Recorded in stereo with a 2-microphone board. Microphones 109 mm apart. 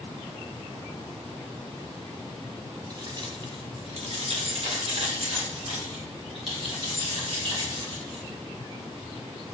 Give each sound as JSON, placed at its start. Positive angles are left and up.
{"t": 2.9, "sound": "keys jangling", "side_deg": -35, "distance_m": 1.2}